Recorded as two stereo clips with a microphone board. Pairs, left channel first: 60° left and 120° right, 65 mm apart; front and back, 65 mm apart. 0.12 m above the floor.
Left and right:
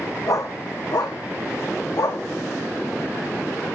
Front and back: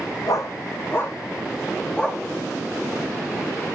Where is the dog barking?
30° left, 2.5 m; by 2.2 s 80° left, 3.5 m.